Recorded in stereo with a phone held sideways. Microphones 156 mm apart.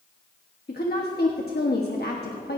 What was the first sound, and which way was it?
A woman speaking, 80° left.